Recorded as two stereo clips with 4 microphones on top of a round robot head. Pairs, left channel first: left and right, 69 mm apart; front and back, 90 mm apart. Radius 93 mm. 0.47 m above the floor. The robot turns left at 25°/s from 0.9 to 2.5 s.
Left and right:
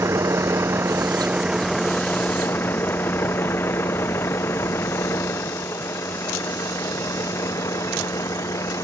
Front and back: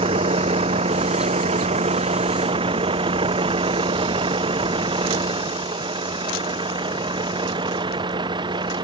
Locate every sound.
0.0 s a vehicle: 150° right; by 8.9 s 145° left